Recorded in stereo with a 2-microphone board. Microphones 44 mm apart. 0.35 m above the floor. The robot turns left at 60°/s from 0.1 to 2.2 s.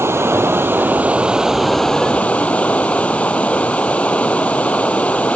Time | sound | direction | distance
0.0 | running water | 85° right | ?